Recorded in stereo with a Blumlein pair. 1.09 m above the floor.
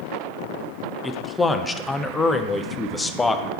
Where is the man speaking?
10° left, 0.5 m.